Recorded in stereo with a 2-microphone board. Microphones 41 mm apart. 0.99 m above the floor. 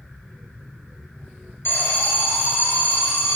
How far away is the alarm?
About 1.2 m.